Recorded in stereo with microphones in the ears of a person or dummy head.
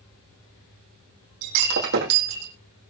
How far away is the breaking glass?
About 4 m.